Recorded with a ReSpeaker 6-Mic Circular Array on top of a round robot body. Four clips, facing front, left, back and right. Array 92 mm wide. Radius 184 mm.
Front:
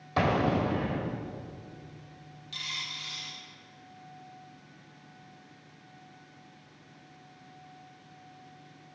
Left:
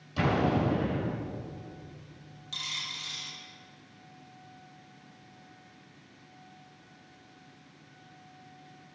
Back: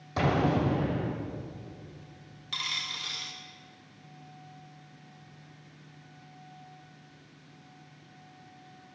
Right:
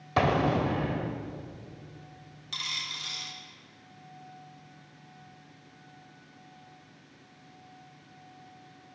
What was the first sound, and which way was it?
An explosion, 70° right.